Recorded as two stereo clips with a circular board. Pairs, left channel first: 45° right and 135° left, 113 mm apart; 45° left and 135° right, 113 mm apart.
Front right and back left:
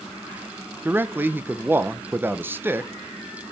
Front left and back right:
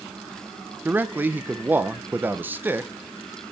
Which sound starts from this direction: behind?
A man speaking, at 0.8 s.